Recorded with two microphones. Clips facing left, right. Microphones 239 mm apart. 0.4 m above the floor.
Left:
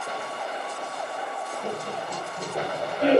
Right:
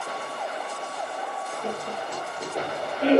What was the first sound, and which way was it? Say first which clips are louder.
Laughter: even; 60° left (ahead or behind).